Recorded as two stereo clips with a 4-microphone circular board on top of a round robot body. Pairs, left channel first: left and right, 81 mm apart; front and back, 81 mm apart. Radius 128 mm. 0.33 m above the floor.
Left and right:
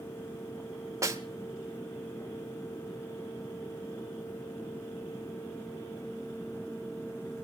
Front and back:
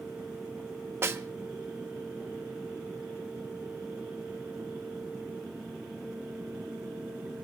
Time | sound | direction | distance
1.0 | a snare drum | 130° right | 1.6 m